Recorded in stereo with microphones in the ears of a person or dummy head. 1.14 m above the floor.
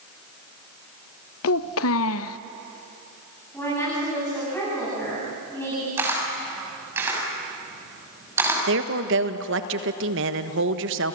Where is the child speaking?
70° left (ahead or behind), 0.6 m.